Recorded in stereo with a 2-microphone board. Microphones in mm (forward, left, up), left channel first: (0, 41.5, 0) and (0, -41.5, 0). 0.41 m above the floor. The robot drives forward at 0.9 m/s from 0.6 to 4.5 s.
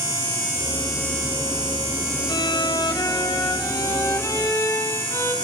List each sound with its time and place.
2.3 s a violin: 60° left (ahead or behind), 1.9 m; by 5.3 s 40° left (ahead or behind), 2.5 m